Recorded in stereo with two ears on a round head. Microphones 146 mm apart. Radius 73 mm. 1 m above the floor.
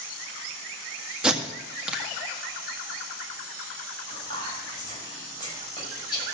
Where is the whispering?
30° left (ahead or behind), 6 m.